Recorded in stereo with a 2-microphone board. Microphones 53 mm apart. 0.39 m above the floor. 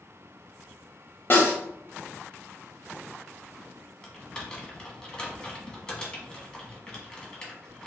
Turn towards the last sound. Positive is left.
turn(degrees=15)  # may be behind; listen again after turning